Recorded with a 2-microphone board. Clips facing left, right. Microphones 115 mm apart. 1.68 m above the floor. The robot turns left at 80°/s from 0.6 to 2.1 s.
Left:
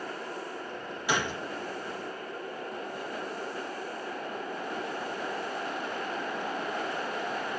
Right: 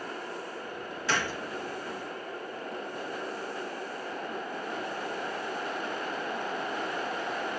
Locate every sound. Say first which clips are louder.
1.1 s a gunshot: left 1 dB; 15° left (ahead or behind), 1.0 m; by 1.4 s 20° left (ahead or behind), 1.0 m